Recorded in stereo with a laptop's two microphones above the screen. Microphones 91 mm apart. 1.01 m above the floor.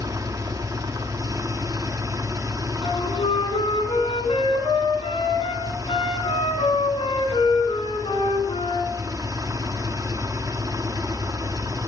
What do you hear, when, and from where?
0.0 s an engine running: 40° right (ahead or behind), 1.4 m
2.8 s a flute: 85° left, 4.5 m